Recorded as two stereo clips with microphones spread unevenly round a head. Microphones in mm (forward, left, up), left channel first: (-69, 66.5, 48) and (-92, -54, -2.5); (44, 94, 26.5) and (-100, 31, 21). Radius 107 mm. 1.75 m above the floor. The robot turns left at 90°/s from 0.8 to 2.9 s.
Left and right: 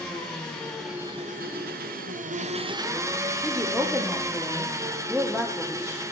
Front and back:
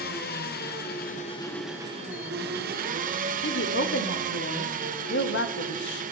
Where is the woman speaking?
15° right, 0.9 m.